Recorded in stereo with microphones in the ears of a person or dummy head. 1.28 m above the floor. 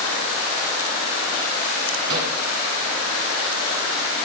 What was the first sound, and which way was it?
A microwave, 75° right (ahead or behind).